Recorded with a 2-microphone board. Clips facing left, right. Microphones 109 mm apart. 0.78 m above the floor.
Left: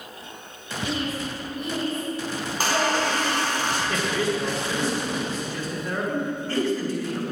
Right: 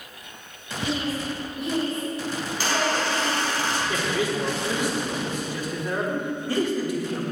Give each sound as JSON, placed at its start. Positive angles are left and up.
{"t": 0.8, "sound": "a woman speaking", "side_deg": -15, "distance_m": 4.0}
{"t": 2.5, "sound": "a squeak", "side_deg": 45, "distance_m": 4.0}
{"t": 3.9, "sound": "a man speaking", "side_deg": -15, "distance_m": 1.9}